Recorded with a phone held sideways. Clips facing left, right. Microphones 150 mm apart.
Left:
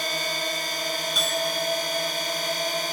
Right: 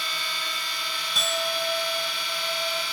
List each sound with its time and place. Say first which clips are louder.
0.0 s a drone: left 7 dB; 50° left (ahead or behind)
1.1 s a clink: right 1 dB; centre (ahead or behind)